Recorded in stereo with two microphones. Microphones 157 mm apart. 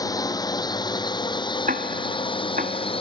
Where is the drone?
25° left (ahead or behind); by 3.0 s 35° left (ahead or behind).